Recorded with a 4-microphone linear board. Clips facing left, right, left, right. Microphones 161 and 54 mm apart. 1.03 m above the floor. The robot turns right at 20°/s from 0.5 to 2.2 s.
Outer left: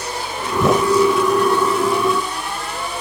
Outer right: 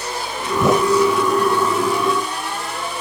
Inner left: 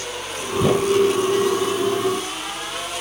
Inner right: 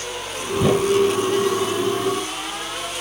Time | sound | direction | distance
0.6 | a whoosh | 5° right (ahead or behind) | ?